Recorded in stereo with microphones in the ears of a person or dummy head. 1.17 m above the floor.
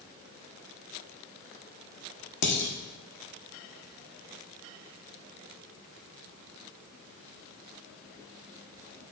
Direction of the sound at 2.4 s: 60° left (ahead or behind).